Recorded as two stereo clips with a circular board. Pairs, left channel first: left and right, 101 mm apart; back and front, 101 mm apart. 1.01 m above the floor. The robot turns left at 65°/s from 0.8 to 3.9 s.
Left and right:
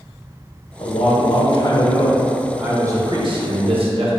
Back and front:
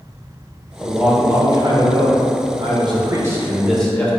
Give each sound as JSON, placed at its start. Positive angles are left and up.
{"t": 0.8, "sound": "a man speaking", "azimuth_deg": 95, "distance_m": 0.7}